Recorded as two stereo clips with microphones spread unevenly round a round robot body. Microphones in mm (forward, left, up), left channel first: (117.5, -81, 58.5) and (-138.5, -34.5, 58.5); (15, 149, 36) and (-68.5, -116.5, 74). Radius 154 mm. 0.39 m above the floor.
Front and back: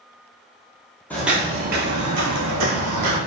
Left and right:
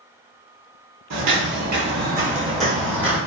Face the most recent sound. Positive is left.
turn(degrees=155)